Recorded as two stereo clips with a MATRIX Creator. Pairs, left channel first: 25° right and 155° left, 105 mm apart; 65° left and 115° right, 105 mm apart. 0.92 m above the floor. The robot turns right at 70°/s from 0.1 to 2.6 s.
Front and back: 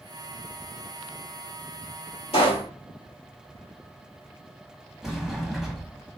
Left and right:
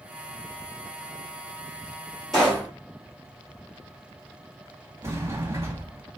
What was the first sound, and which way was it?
A pop, 20° right.